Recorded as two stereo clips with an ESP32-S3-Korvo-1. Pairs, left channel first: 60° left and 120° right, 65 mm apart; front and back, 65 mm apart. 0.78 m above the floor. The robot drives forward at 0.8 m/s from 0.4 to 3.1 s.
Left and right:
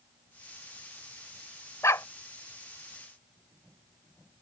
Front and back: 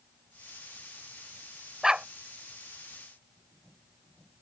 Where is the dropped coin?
I don't hear a dropped coin.